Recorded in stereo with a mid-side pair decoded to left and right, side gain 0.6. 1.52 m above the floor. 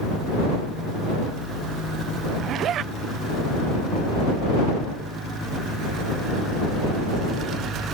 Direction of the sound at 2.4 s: 50° right.